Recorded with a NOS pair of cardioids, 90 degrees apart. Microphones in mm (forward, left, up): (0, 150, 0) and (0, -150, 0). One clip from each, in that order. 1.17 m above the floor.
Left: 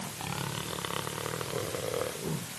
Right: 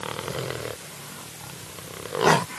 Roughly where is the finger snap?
No finger snap in this recording.